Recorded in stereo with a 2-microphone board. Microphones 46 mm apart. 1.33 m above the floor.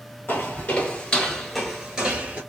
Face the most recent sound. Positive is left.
turn(degrees=-25)  # may be behind; listen again after turning